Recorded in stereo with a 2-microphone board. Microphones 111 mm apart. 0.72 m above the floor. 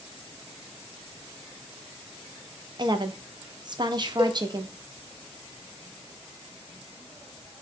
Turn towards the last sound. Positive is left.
turn(degrees=-40)  # may be behind; listen again after turning